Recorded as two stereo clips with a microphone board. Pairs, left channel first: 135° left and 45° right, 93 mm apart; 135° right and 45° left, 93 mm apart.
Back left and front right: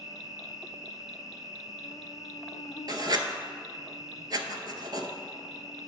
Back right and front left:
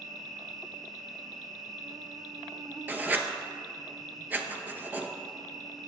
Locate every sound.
0.0 s an insect: 85° left, 0.7 m
2.9 s writing: 20° right, 0.7 m